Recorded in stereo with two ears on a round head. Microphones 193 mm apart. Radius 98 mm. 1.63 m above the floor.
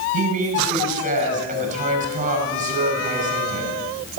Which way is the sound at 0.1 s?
35° right (ahead or behind).